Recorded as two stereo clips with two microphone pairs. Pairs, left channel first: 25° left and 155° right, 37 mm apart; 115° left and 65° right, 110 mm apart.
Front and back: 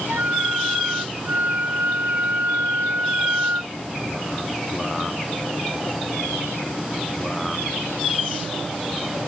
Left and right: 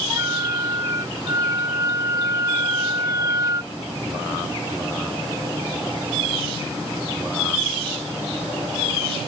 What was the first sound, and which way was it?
A flute, 120° right.